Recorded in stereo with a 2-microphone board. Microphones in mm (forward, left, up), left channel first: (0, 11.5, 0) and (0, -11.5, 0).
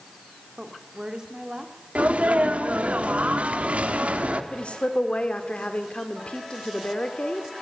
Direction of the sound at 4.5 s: 55° left (ahead or behind).